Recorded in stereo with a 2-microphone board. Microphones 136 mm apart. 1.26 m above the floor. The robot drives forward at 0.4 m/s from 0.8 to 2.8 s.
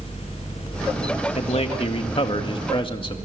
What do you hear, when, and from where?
1.4 s a man speaking: 50° left (ahead or behind), 1.6 m; by 3.2 s 40° left (ahead or behind), 2 m